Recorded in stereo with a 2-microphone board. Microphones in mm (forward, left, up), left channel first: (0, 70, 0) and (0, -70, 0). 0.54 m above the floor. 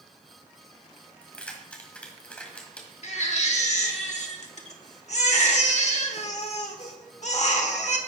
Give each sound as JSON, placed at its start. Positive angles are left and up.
{"t": 1.2, "sound": "keys jangling", "side_deg": 10, "distance_m": 1.9}
{"t": 3.0, "sound": "a baby crying", "side_deg": 55, "distance_m": 1.3}